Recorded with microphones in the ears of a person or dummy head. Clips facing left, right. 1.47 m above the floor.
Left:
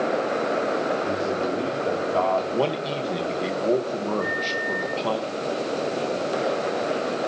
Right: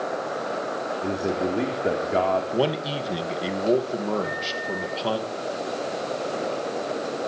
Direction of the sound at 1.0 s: 25° right (ahead or behind).